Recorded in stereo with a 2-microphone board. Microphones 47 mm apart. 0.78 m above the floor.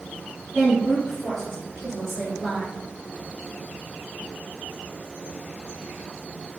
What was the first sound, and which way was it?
A woman speaking, 5° right (ahead or behind).